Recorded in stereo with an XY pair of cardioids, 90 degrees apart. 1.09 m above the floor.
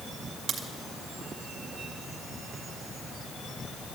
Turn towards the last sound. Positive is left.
turn(degrees=-65)